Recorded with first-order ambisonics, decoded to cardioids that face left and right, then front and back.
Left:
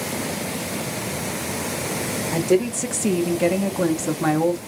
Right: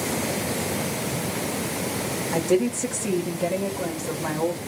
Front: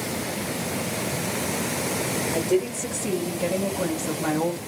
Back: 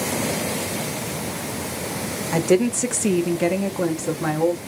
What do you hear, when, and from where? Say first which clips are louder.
2.3 s a woman speaking: left 2 dB, back 7 dB; 175° left, 1.0 m; by 4.6 s 100° left, 1.1 m